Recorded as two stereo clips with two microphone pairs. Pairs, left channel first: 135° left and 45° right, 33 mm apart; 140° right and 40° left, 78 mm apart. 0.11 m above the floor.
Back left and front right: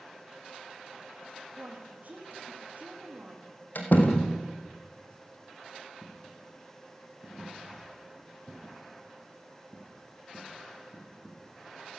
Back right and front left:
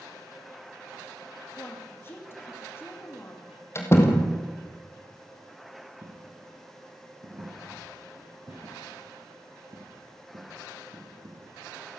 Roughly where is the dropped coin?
Ahead left.